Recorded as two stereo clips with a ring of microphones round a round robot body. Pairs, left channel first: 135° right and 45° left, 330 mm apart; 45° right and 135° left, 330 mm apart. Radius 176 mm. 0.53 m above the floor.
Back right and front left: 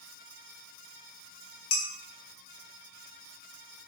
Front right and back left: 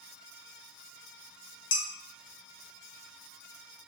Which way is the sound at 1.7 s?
95° right.